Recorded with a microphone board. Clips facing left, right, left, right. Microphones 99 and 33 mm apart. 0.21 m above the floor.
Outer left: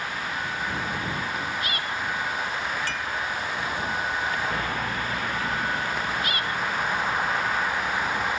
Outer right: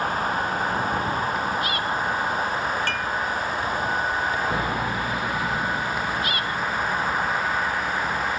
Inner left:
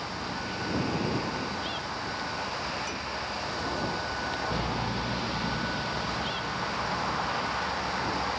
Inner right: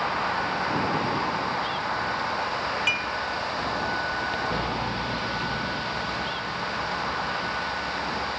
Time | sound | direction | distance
0.0 | a vehicle | 40° right (ahead or behind) | ?
2.9 | dishes clattering | 55° right (ahead or behind) | ?